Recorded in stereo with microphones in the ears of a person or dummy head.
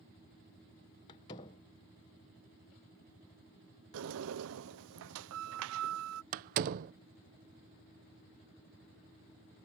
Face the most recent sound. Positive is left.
turn(degrees=-45)  # may be behind; listen again after turning